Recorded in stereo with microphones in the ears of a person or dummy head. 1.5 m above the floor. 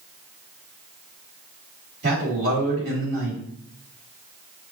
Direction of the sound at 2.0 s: 50° right (ahead or behind).